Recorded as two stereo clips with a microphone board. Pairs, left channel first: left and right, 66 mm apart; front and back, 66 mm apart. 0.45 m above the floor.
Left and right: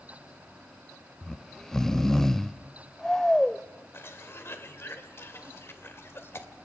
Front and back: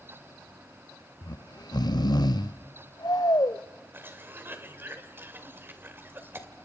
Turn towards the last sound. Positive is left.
turn(degrees=135)